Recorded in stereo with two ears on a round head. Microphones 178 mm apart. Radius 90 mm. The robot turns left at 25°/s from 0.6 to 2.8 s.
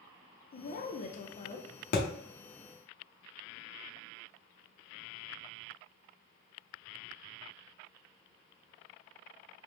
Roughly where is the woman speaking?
Left.